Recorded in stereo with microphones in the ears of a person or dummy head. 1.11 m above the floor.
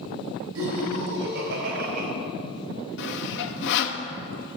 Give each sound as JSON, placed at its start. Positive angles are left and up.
{"t": 0.6, "sound": "laughter", "side_deg": -75, "distance_m": 4.5}
{"t": 3.0, "sound": "sawing", "side_deg": 60, "distance_m": 0.7}